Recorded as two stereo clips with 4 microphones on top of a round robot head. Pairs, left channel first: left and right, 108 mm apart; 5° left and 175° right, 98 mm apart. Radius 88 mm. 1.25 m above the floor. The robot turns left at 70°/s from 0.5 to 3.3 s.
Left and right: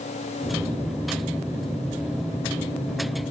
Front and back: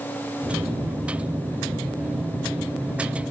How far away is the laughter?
I don't hear laughter.